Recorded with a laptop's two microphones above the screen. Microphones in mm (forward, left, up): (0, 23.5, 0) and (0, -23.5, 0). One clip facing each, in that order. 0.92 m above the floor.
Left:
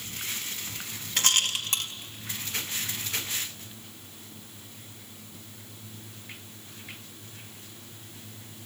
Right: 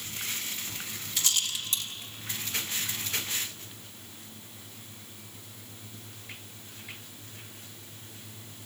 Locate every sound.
1.2 s a rattle: 55° left (ahead or behind), 0.9 m